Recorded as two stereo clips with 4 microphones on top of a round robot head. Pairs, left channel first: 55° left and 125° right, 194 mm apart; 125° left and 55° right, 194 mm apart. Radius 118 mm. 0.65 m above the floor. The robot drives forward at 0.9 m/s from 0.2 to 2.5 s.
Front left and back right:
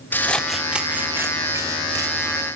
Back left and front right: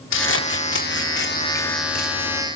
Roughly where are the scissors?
Behind left.